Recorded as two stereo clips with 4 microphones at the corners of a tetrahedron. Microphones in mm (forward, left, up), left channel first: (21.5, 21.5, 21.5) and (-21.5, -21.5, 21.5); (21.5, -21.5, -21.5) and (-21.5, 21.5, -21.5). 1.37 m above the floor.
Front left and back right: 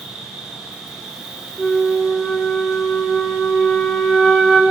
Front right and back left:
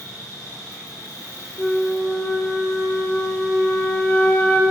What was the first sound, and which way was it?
An insect, 55° right.